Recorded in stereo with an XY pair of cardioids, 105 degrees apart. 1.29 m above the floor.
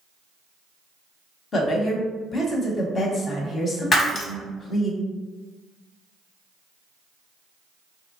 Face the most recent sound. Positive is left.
turn(degrees=40)